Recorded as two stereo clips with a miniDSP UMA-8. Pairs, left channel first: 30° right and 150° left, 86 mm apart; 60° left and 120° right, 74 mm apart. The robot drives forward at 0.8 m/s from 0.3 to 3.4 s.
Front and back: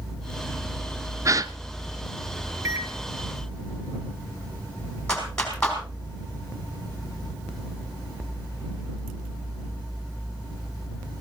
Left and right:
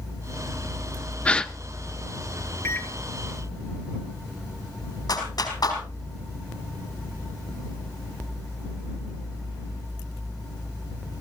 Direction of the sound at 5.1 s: 50° left.